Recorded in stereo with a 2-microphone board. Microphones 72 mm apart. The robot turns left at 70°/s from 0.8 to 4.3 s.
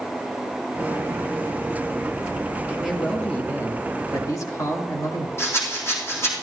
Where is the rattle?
35° left (ahead or behind), 3.5 m.